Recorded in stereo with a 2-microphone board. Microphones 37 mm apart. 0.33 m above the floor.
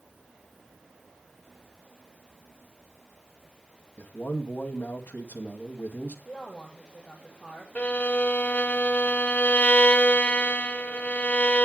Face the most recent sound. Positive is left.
turn(degrees=40)  # may be behind; listen again after turning